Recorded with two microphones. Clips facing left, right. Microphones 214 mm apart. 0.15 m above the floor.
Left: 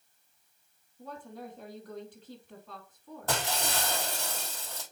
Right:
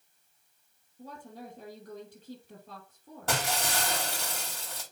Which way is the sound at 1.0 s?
45° right (ahead or behind).